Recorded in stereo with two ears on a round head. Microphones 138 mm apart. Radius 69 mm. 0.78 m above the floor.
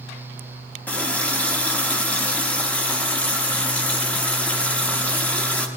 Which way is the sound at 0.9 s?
10° left (ahead or behind).